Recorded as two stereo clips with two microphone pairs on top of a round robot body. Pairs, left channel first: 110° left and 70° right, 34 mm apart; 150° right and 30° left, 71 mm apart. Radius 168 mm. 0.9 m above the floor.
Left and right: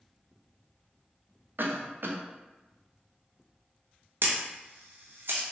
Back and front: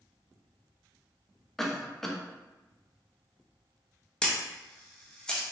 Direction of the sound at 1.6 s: 60° right.